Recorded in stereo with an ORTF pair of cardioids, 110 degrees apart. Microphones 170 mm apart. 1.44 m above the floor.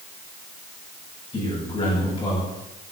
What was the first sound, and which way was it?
A man speaking, 30° left.